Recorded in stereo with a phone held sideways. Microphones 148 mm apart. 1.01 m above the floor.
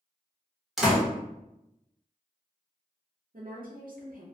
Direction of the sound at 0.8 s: Centre (ahead or behind).